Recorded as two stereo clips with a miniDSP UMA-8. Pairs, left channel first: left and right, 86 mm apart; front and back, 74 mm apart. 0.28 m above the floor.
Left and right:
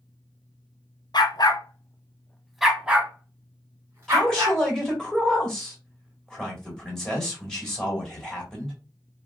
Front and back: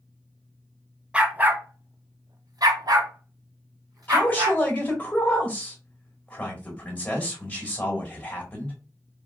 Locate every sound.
1.1 s a dog barking: 110° left, 0.8 m; by 4.6 s 145° right, 1.8 m
4.1 s a man speaking: 20° left, 1.5 m